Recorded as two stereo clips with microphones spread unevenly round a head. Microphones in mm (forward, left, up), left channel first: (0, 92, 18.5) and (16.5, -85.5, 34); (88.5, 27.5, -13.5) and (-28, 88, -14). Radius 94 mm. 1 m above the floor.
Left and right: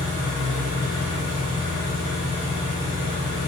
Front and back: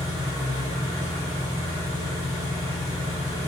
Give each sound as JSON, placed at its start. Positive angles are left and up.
{"t": 0.0, "sound": "an engine running", "azimuth_deg": -140, "distance_m": 1.9}